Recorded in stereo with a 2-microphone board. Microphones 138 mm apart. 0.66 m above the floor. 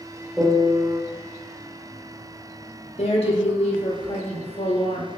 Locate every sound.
0.4 s a piano: 5° right (ahead or behind), 1.1 m
3.0 s a woman speaking: 45° left (ahead or behind), 0.8 m